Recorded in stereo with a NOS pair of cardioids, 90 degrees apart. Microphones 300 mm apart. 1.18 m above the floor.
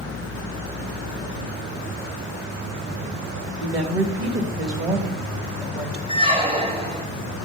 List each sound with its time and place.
3.6 s a woman speaking: 45° right, 1.8 m
6.1 s a squeak: 20° right, 1.1 m